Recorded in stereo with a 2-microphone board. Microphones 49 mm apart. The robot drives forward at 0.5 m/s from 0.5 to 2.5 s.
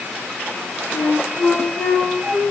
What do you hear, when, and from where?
0.9 s a flute: 65° left (ahead or behind), 4 m; by 2.4 s 75° left (ahead or behind), 3.5 m